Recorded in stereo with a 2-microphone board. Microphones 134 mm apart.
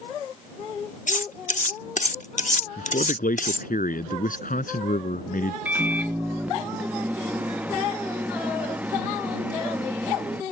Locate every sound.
1.1 s cutlery clinking: 60° left (ahead or behind)
2.8 s a man speaking: 80° left
5.7 s a microwave: 10° right (ahead or behind)